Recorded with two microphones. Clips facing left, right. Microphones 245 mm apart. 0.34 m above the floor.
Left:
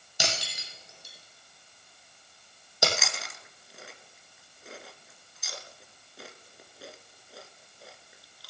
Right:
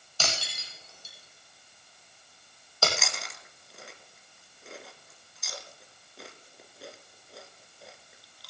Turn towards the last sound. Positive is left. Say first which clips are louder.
# even
turn(degrees=0)  # may be behind; listen again after turning